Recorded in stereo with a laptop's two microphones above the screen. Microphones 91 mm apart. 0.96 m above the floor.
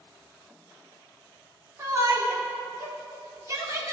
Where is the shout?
35° right (ahead or behind), 2.5 m.